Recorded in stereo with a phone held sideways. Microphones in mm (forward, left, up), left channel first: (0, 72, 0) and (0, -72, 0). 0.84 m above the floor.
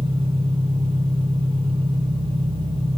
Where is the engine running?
35° right (ahead or behind), 3 m.